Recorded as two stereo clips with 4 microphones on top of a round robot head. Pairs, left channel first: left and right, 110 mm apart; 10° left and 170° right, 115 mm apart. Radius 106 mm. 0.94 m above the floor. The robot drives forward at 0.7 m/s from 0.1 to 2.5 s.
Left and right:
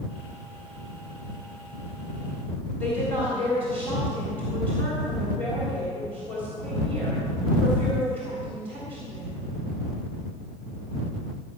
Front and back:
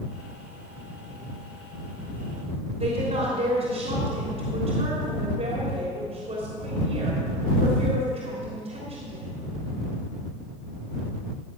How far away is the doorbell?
I don't hear a doorbell.